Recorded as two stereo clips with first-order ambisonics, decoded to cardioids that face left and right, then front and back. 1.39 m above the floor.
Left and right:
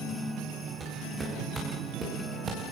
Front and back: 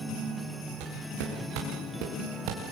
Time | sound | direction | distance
0.8 | footsteps | 160° right | 9.5 m